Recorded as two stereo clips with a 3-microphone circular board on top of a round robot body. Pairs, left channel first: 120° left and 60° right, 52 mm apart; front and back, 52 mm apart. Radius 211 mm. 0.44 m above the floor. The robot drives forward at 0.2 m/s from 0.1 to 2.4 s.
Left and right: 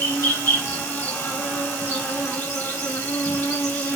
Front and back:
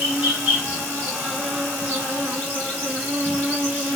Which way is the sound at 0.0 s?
120° left.